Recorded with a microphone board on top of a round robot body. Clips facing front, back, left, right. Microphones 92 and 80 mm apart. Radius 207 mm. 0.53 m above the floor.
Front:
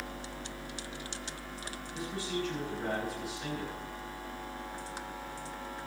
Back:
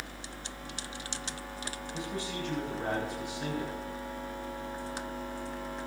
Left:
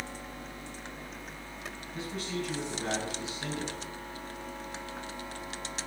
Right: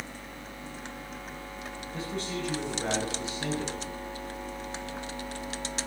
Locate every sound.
1.9 s a man speaking: 145° right, 8 m